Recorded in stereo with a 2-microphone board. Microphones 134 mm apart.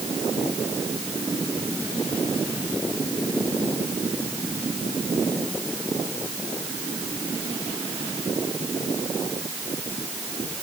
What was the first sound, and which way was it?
Only background noise.